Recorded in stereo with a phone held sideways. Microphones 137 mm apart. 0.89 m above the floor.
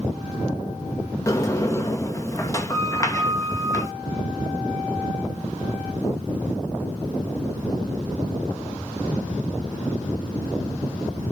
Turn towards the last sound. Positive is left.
turn(degrees=20)  # may be behind; listen again after turning